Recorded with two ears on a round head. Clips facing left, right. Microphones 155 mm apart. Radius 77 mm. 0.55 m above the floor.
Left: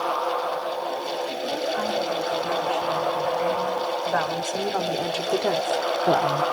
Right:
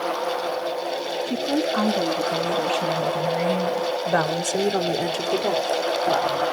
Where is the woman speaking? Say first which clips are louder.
Right 7 dB; 70° right (ahead or behind), 6 m; by 6.4 s 55° left (ahead or behind), 1.8 m.